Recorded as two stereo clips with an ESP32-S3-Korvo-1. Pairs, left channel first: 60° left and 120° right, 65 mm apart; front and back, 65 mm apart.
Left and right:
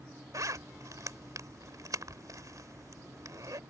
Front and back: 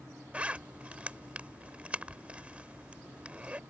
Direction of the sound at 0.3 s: 110° right.